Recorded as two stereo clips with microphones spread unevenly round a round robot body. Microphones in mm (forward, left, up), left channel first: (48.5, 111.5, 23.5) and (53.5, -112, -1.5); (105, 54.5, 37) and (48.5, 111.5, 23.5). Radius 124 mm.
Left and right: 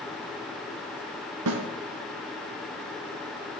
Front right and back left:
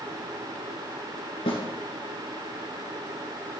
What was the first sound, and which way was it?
A snare drum, 75° right.